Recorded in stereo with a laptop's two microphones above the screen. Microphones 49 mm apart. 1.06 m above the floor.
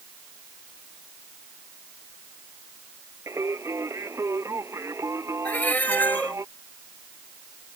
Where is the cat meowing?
35° left (ahead or behind).